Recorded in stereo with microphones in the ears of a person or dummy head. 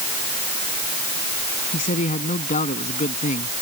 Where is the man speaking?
45° left (ahead or behind).